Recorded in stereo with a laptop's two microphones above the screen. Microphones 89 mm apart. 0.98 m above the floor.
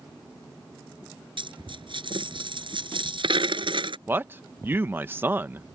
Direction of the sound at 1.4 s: 65° right (ahead or behind).